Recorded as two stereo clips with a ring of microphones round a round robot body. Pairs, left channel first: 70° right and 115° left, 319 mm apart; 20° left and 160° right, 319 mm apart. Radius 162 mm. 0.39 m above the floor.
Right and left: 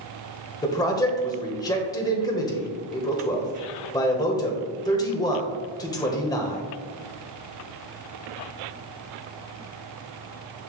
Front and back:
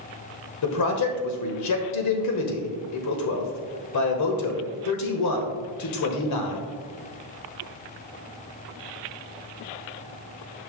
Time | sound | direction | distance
0.6 | a man speaking | 10° left | 1.4 m